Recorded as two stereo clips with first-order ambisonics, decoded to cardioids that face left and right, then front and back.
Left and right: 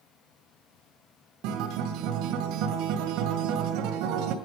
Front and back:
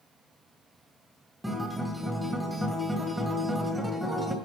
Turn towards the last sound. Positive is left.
turn(degrees=-95)